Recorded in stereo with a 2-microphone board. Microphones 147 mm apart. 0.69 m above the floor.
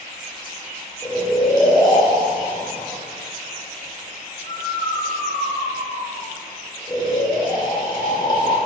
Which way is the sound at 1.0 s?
30° left (ahead or behind).